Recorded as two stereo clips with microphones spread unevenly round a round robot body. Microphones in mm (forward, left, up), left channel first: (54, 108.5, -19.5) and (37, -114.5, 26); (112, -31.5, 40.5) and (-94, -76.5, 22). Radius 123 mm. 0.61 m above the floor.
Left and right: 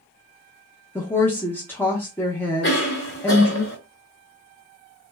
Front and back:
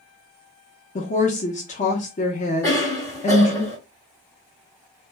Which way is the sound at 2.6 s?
90° left.